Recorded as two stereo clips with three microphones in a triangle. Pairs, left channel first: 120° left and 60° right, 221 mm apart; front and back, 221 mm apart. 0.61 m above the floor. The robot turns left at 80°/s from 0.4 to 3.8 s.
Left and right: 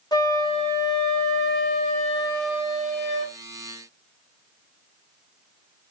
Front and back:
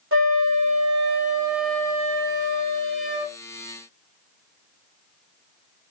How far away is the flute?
About 1.3 m.